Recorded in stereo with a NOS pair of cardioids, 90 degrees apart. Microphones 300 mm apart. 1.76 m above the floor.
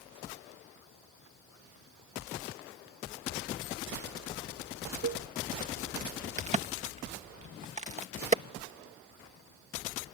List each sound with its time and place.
5.0 s a cowbell: 60° right
6.4 s a crack: 25° right